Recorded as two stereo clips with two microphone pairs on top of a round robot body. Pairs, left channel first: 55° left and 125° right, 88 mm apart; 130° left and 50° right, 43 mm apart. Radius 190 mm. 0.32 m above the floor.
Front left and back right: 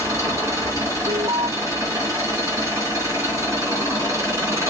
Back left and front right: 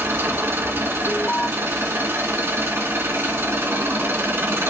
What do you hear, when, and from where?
0.0 s an engine running: 65° right, 3 m
1.1 s an alarm: 160° right, 0.8 m